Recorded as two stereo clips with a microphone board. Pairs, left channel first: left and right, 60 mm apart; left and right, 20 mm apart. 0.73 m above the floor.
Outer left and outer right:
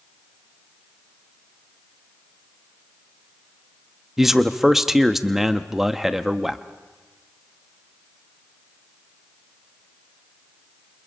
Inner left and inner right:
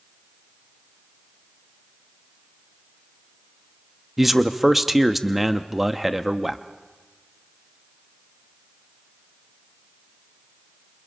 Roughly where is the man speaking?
Centre.